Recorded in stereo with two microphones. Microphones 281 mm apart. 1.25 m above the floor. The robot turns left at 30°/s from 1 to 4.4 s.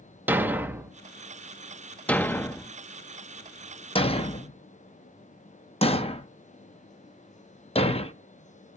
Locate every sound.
0.3 s a thud: 5° right (ahead or behind), 0.6 m; by 8.1 s 25° left (ahead or behind), 0.6 m